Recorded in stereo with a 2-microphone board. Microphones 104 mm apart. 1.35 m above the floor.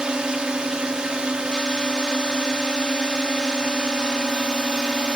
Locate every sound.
0.0 s a drone: 10° right (ahead or behind)